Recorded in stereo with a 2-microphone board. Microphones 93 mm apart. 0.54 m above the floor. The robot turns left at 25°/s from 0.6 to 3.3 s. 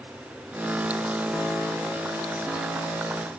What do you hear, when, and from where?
Only background noise.